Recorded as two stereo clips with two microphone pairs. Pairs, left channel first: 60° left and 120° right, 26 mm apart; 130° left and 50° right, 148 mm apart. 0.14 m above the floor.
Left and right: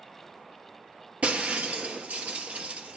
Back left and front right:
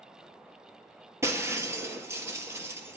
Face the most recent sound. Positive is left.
turn(degrees=-120)